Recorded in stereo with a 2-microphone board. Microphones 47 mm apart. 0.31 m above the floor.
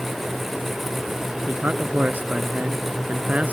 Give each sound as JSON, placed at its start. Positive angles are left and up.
{"t": 1.5, "sound": "a man speaking", "side_deg": -35}